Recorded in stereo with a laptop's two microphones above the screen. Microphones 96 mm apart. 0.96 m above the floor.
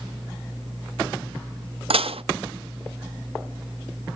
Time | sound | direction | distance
1.9 | dishes clattering | 75° right (ahead or behind) | 0.5 m